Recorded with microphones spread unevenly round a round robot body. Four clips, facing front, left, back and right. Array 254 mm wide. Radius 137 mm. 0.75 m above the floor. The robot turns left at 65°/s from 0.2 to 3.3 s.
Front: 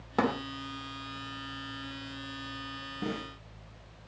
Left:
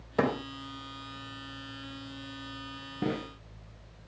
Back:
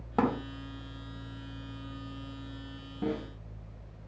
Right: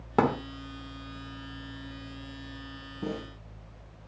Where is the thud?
75° right, 3.5 m; by 0.4 s 90° right, 3.5 m.